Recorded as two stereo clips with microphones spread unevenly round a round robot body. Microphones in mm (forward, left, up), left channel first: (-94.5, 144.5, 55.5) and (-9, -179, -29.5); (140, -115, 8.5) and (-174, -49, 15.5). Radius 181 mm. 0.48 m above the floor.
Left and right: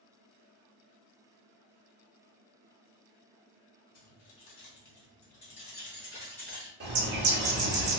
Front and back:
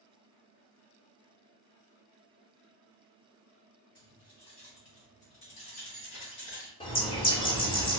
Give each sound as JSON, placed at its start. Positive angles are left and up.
{"t": 4.0, "sound": "keys jangling", "azimuth_deg": 60, "distance_m": 1.0}
{"t": 6.8, "sound": "a bird", "azimuth_deg": -80, "distance_m": 0.9}